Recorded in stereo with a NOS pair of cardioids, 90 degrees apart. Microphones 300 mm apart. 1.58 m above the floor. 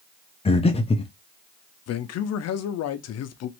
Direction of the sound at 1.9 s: 65° left.